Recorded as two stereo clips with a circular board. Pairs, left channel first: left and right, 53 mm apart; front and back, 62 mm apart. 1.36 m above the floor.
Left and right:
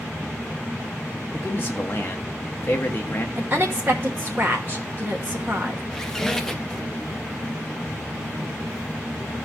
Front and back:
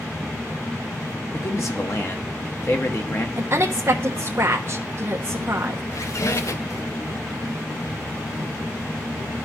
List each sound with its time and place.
1.3 s a man speaking: 40° left, 1.5 m
3.4 s a woman speaking: 135° right, 1.1 m
5.9 s a squeak: 10° left, 0.6 m